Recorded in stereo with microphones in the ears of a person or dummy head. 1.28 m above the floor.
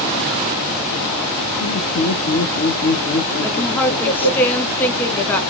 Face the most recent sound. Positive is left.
turn(degrees=10)  # may be behind; listen again after turning